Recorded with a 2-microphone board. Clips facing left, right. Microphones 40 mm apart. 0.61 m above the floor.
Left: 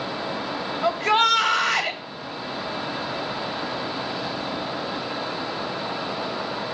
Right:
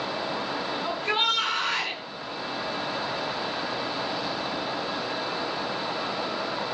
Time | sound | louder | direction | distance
0.8 | a shout | left 8 dB | 75° left (ahead or behind) | 3.5 m